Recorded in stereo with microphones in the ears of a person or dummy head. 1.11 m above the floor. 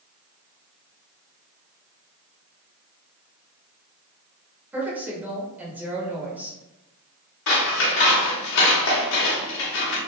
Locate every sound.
4.7 s a woman speaking: 10° right (ahead or behind), 1.5 m
7.5 s scissors: 65° left (ahead or behind), 1.2 m